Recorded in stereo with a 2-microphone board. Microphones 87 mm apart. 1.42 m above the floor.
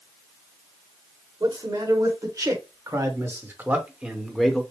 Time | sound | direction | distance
1.4 | a man speaking | 50° right (ahead or behind) | 1.9 m